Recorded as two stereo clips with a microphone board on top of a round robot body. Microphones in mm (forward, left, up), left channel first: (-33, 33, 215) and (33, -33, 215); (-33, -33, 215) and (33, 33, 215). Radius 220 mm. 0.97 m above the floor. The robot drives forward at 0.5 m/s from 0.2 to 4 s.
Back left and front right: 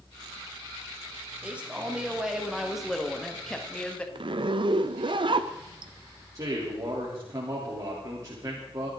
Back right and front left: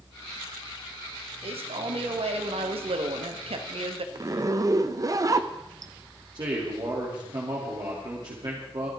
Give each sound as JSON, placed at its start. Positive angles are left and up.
{"t": 1.4, "sound": "a man speaking", "azimuth_deg": 30, "distance_m": 2.5}
{"t": 4.2, "sound": "a zipper", "azimuth_deg": -10, "distance_m": 0.7}
{"t": 6.3, "sound": "a man speaking", "azimuth_deg": 5, "distance_m": 3.5}